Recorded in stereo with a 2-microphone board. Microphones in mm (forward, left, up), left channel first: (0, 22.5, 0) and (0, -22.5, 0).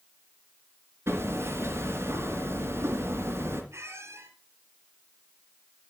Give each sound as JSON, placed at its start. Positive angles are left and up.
{"t": 1.1, "sound": "hammering", "side_deg": -65, "distance_m": 3.0}
{"t": 3.7, "sound": "a squeak", "side_deg": -80, "distance_m": 3.0}